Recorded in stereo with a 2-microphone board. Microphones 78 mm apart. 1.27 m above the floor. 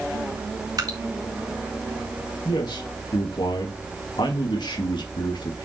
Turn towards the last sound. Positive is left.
turn(degrees=85)